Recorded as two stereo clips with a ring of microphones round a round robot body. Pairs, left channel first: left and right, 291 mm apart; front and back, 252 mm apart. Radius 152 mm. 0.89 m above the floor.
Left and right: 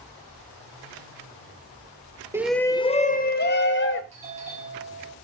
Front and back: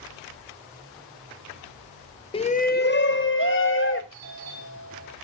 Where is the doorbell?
160° right, 5 m.